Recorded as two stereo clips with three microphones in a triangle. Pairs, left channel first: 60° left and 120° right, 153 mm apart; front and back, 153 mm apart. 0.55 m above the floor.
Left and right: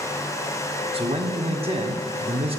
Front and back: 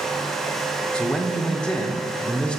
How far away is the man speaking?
About 1.1 m.